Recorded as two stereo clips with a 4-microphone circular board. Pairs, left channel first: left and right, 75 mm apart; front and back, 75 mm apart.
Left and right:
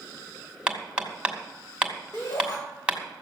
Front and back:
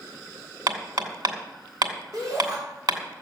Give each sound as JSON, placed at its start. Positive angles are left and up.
{"t": 0.7, "sound": "hammering", "azimuth_deg": -165, "distance_m": 2.5}
{"t": 2.1, "sound": "a shout", "azimuth_deg": 140, "distance_m": 6.0}